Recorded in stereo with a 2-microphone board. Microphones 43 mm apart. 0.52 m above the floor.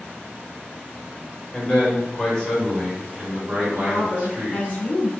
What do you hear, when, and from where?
1.5 s a man speaking: 35° left (ahead or behind), 1.7 m; by 4.8 s 50° right (ahead or behind), 1.7 m
3.8 s a woman speaking: 40° left (ahead or behind), 0.8 m